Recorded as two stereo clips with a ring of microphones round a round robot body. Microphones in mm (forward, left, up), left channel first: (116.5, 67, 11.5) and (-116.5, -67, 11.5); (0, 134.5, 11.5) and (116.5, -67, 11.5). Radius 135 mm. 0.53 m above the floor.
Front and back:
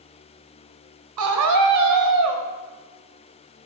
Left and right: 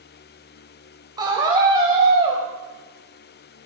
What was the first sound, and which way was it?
A scream, 135° right.